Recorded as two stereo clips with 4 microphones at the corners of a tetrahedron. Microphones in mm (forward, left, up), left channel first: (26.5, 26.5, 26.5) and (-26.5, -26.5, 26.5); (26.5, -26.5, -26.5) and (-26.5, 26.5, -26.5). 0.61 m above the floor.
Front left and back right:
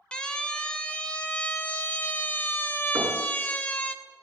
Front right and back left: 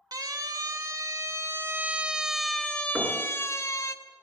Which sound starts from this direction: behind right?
Knocking, at 3.0 s.